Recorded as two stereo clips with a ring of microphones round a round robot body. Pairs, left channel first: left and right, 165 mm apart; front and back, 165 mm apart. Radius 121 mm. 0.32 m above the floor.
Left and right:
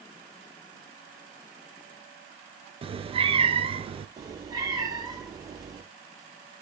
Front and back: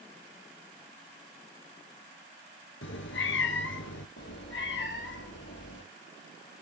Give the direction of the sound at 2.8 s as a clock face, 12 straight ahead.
1 o'clock.